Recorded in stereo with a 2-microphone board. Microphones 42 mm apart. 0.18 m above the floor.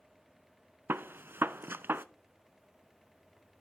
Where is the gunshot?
60° right (ahead or behind), 0.5 m.